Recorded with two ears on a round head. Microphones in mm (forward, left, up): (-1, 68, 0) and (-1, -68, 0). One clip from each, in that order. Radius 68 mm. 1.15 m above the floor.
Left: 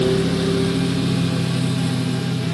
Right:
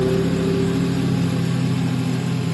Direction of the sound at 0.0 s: 75° left (ahead or behind).